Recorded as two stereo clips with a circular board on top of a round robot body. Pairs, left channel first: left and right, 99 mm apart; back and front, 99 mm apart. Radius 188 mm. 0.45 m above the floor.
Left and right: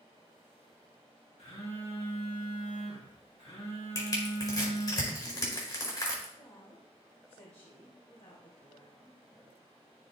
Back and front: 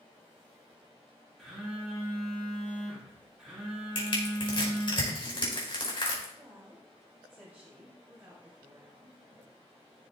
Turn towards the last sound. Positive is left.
turn(degrees=75)